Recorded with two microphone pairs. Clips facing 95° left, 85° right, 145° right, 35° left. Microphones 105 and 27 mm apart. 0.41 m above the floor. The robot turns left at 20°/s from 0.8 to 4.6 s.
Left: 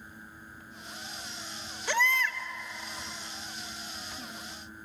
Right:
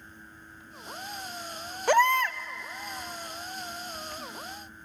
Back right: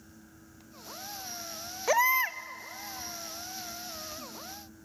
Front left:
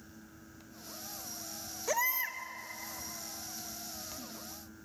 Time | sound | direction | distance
1.9 | a baby crying | 105° right | 0.7 m